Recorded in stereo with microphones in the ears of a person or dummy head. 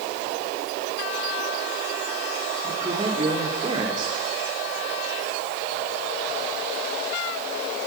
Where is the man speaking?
30° right (ahead or behind), 4.5 m.